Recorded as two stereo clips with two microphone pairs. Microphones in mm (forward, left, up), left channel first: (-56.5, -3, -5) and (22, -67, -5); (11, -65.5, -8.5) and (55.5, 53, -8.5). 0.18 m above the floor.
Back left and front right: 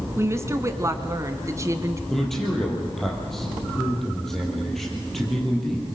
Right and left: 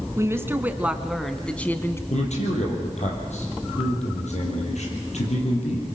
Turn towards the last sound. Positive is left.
turn(degrees=-130)